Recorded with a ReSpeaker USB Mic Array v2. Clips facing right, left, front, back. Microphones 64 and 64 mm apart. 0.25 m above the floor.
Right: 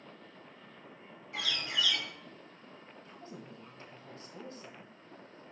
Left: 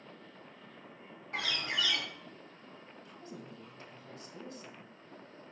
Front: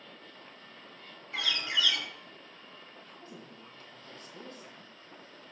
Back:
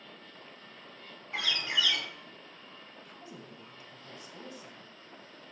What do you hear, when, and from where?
1.3 s a bird: 120° left, 1.8 m
3.0 s a woman speaking: 115° right, 1.5 m